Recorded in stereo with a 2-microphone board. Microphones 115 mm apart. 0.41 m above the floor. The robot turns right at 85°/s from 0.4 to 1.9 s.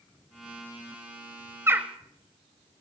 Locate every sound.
1.7 s a bird: 25° right (ahead or behind), 0.9 m; by 1.9 s 5° right (ahead or behind), 0.9 m